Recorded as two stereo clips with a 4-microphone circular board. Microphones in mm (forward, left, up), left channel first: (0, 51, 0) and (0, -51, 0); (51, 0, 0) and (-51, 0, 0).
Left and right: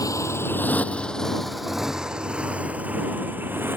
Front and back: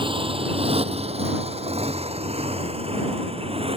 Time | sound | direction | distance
0.0 | a motorcycle | 145° left | ?